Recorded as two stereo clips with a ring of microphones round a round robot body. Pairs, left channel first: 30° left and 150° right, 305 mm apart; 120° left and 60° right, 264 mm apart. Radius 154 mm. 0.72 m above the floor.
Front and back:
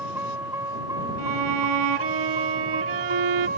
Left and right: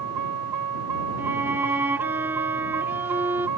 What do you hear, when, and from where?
0.0 s a vehicle: 65° right; by 3.6 s 90° right
1.2 s a violin: 145° right